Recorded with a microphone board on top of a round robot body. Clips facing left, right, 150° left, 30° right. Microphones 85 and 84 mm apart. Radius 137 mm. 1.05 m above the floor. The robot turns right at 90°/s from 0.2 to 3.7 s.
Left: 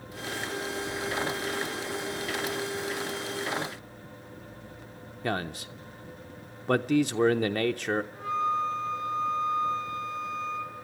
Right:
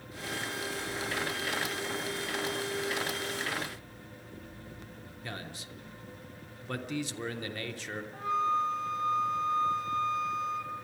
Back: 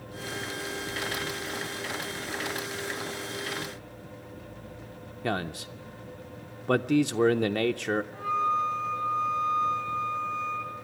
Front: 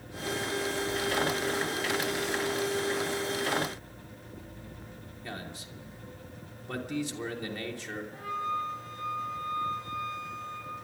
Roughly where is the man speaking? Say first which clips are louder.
Left 12 dB, back 11 dB; behind left.